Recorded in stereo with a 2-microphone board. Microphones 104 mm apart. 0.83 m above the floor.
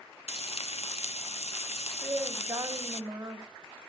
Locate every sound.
0.3 s frying: 75° left (ahead or behind), 0.5 m
2.0 s a woman speaking: 35° right (ahead or behind), 1.8 m